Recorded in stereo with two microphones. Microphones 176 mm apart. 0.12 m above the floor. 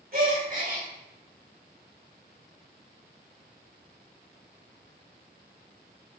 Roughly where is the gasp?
Right.